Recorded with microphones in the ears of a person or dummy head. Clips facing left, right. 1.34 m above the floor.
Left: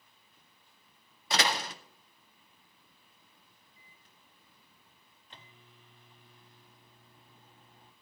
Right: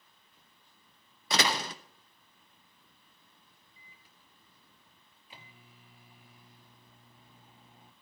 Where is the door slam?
75° right (ahead or behind), 1.0 m.